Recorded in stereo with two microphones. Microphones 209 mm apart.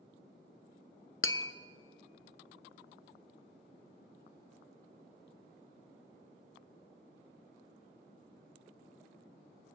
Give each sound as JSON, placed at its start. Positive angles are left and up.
{"t": 1.2, "sound": "tapping", "side_deg": 80, "distance_m": 0.6}